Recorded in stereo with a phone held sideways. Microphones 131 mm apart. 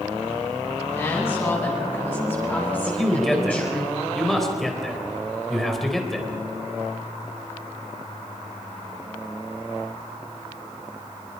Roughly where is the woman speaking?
Centre.